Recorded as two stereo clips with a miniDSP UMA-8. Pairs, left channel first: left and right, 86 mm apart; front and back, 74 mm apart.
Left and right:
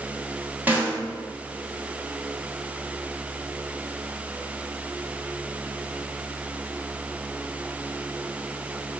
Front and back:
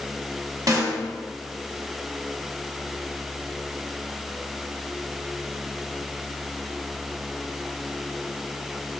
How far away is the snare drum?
About 0.9 m.